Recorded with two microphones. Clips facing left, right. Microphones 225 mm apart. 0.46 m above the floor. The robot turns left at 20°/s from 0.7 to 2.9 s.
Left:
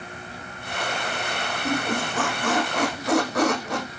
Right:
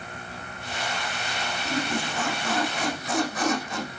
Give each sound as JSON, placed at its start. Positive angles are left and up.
{"t": 1.6, "sound": "a squeak", "side_deg": 85, "distance_m": 7.0}